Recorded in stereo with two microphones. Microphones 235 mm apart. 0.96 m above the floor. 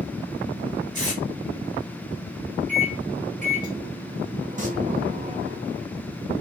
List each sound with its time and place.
0.9 s tape being pulled: 20° right (ahead or behind), 1.8 m
2.7 s a microwave: 35° right (ahead or behind), 0.8 m
4.6 s singing: 35° right (ahead or behind), 0.8 m